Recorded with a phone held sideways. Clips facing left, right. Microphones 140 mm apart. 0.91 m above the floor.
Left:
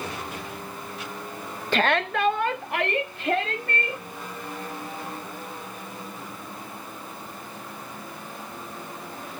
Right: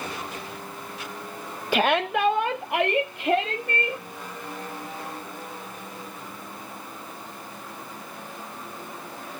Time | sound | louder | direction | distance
1.7 | a shout | right 1 dB | 10° right (ahead or behind) | 0.5 m